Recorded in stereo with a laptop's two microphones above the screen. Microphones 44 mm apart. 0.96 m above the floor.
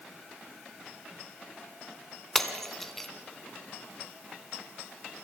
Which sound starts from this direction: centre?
Breaking glass, at 2.4 s.